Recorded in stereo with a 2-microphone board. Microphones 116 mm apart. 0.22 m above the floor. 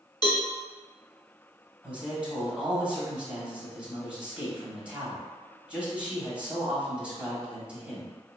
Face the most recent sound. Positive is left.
turn(degrees=-10)  # may be behind; listen again after turning